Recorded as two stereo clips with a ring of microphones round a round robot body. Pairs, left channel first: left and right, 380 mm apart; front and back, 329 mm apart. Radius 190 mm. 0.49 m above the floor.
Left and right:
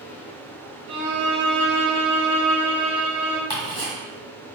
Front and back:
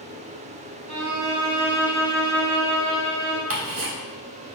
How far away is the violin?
About 0.7 m.